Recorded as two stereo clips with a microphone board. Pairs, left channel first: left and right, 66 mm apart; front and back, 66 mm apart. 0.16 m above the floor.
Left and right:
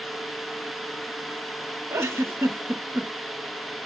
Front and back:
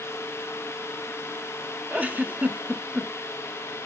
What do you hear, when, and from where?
1.9 s a giggle: 120° right, 1.0 m